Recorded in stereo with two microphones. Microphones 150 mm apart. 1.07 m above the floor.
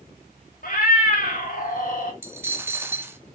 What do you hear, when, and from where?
0.6 s a cat meowing: 75° left (ahead or behind), 1.3 m
2.2 s a dropped coin: 15° right (ahead or behind), 0.5 m